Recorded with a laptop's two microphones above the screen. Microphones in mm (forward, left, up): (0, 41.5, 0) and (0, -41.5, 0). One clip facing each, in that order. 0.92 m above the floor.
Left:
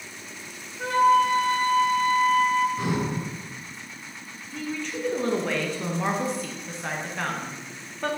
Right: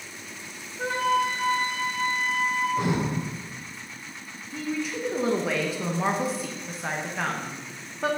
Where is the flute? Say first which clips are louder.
Left 5 dB; 25° right (ahead or behind), 0.8 m.